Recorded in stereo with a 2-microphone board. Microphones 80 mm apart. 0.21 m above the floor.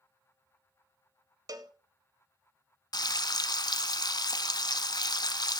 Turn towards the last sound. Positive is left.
turn(degrees=60)  # may be behind; listen again after turning